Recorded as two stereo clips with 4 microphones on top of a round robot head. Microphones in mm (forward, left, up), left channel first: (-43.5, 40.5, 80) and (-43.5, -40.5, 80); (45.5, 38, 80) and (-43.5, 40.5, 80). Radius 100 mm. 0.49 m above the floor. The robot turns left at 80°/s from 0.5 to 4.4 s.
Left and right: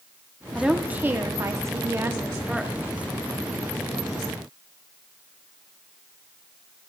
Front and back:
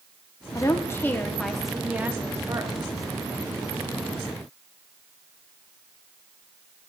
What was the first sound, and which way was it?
A woman speaking, 5° right.